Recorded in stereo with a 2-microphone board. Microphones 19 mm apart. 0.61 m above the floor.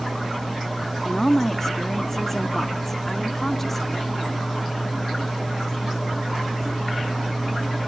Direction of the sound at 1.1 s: 20° left (ahead or behind).